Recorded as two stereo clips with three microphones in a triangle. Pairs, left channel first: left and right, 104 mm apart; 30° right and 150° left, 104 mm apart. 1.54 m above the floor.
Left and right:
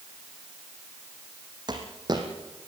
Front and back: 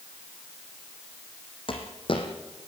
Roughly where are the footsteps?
Ahead right.